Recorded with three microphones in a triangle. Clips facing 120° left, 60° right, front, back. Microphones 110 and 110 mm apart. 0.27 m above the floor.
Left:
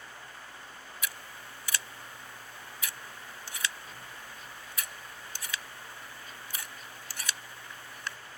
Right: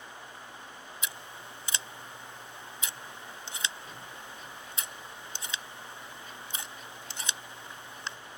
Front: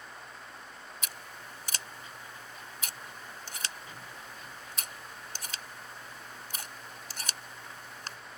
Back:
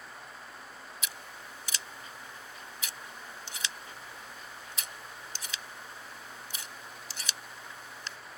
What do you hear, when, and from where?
1.0 s scissors: straight ahead